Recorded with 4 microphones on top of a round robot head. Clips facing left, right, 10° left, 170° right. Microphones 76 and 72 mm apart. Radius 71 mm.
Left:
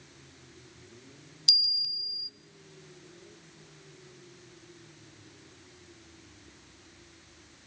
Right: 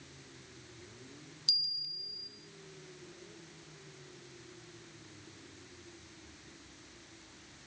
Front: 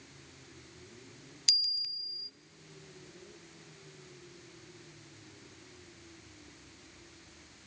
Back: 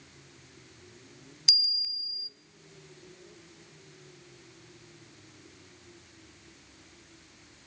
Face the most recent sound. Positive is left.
turn(degrees=110)